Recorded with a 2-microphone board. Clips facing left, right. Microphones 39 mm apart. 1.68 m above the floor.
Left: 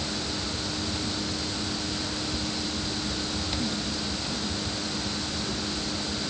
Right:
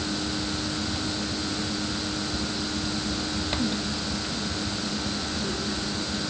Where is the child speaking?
I don't hear a child speaking.